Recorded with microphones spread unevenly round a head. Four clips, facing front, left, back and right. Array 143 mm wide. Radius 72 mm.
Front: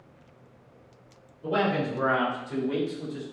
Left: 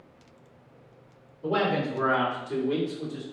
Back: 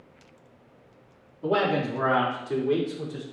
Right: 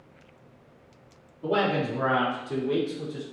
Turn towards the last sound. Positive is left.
turn(degrees=-170)